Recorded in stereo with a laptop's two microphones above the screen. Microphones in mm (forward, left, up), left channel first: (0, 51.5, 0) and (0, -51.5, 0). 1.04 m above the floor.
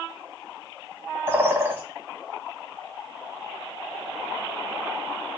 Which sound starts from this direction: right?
A bird, at 1.3 s.